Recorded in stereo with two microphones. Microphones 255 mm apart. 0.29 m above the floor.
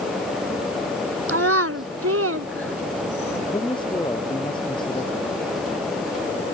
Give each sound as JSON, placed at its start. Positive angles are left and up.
{"t": 1.3, "sound": "a child speaking", "side_deg": -75}
{"t": 3.5, "sound": "a man speaking", "side_deg": 20}